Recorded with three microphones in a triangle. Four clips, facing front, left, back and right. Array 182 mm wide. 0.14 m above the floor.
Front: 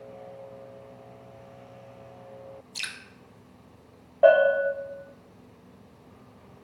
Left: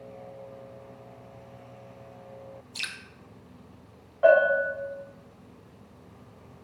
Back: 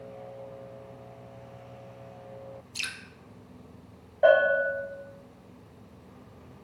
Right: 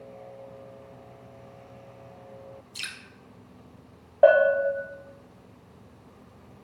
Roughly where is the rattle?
I don't hear a rattle.